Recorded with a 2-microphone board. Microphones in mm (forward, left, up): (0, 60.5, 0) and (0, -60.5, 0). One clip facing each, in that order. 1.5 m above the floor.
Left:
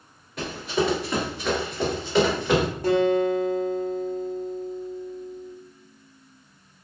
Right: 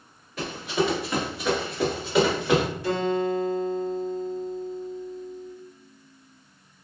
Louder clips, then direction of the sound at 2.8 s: Left 8 dB; 45° left (ahead or behind).